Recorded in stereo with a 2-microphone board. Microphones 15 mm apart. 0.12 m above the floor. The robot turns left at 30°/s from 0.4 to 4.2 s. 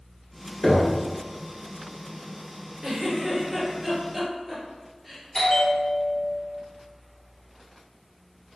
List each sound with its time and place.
0.6 s knocking: 30° left (ahead or behind), 1.3 m; by 1.0 s 35° left (ahead or behind), 1.3 m
2.8 s a giggle: 30° right (ahead or behind), 2.0 m; by 5.2 s centre (ahead or behind), 2.0 m
5.3 s a bell: 35° left (ahead or behind), 1.9 m